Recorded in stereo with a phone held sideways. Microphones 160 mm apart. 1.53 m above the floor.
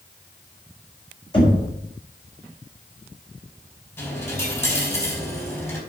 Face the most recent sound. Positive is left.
turn(degrees=15)  # may be behind; listen again after turning